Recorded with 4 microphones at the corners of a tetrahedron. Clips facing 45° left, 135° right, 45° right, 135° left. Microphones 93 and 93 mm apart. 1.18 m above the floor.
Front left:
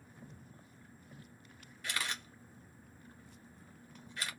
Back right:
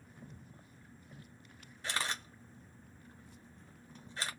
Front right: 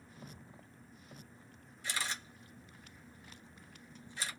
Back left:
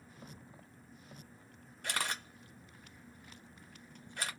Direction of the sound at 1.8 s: 165° left.